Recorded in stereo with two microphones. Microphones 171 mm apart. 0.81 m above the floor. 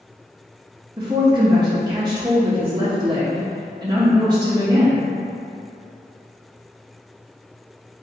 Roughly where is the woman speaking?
Right.